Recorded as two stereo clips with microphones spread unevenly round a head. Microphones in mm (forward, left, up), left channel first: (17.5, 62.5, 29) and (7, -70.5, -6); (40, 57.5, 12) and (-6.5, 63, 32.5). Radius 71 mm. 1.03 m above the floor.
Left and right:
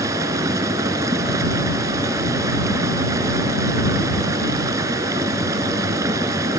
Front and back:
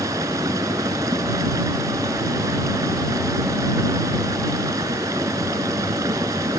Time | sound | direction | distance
0.0 | running water | 165° right | ?